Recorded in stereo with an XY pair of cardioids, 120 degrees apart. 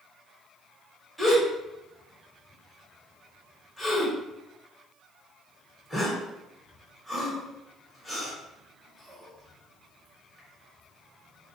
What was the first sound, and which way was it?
A gasp, straight ahead.